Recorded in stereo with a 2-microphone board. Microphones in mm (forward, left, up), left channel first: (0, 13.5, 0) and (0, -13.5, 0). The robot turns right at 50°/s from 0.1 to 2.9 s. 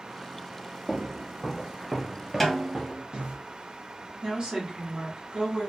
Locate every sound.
0.9 s footsteps: 40° right (ahead or behind), 0.9 m; by 3.4 s 50° right (ahead or behind), 1.0 m
2.4 s a snare drum: 5° left (ahead or behind), 0.8 m; by 3.0 s 30° left (ahead or behind), 0.8 m
4.2 s a woman speaking: 45° right (ahead or behind), 1.2 m